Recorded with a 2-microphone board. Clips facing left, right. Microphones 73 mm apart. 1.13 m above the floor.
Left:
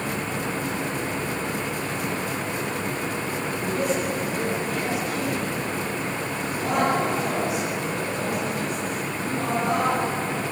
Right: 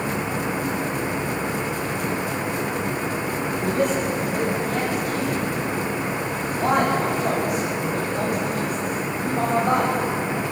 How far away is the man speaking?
About 10 m.